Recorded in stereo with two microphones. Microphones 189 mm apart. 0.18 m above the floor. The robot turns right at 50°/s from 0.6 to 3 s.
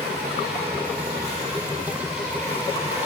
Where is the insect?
75° right, 2.5 m; by 3.1 s 45° left, 2.5 m.